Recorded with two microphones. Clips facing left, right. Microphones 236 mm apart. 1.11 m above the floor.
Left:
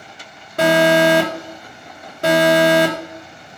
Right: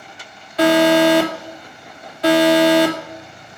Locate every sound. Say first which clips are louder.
0.6 s an alarm: right 2 dB; 50° left (ahead or behind), 1.4 m